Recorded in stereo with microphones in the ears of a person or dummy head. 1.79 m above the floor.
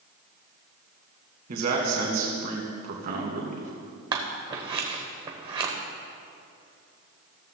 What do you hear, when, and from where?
1.5 s a man speaking: 55° right (ahead or behind), 2.0 m
4.1 s scissors: 35° right (ahead or behind), 1.1 m